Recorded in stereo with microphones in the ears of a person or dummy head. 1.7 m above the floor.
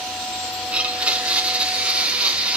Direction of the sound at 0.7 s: 5° right (ahead or behind).